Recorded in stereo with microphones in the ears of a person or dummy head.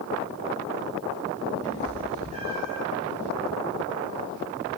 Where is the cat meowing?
45° right (ahead or behind), 2 m; by 2.8 s 35° right (ahead or behind), 3 m.